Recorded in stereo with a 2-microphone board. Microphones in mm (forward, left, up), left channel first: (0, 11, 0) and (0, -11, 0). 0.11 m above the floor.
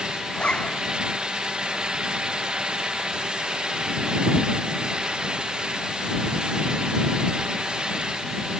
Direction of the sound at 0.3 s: 45° left (ahead or behind).